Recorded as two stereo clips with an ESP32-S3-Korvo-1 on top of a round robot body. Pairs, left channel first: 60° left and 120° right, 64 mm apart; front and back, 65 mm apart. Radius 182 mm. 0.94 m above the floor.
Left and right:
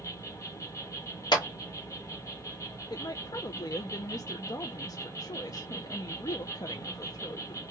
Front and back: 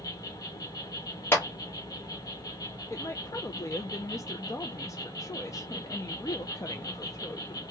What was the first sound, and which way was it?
An insect, 20° left.